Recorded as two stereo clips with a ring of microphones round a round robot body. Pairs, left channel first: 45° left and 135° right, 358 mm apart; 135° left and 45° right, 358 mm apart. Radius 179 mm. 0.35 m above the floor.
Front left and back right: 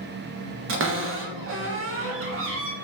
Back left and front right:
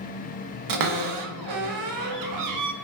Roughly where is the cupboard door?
Right.